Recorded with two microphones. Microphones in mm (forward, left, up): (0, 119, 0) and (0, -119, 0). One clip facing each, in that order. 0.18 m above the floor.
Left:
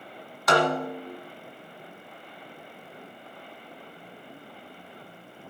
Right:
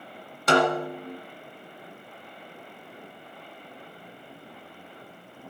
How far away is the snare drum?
About 1.6 m.